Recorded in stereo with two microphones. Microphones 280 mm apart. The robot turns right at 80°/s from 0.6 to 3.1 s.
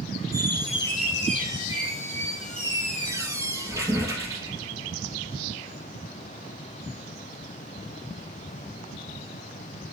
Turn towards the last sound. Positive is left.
turn(degrees=-15)